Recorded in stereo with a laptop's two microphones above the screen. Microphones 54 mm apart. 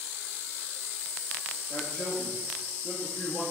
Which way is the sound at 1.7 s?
50° left (ahead or behind).